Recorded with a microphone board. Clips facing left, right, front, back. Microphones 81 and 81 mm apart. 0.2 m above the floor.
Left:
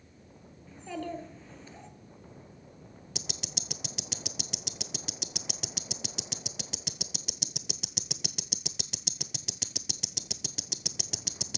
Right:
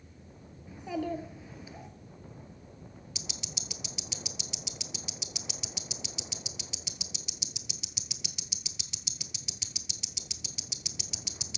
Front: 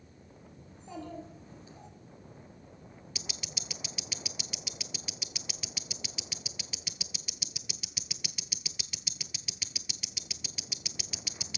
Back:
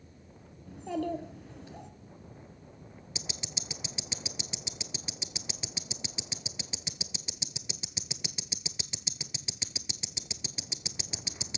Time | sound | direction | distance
0.7 | a child speaking | 170° right | 1.9 m
3.1 | ticking | 115° left | 0.6 m